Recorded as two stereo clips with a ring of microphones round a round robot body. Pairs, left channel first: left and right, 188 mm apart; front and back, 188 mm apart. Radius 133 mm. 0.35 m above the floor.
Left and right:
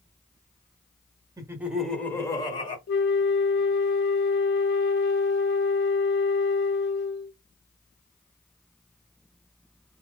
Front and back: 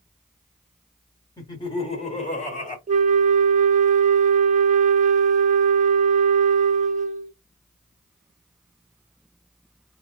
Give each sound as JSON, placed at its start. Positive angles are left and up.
{"t": 1.4, "sound": "laughter", "azimuth_deg": -45, "distance_m": 1.3}
{"t": 2.9, "sound": "a flute", "azimuth_deg": 130, "distance_m": 0.6}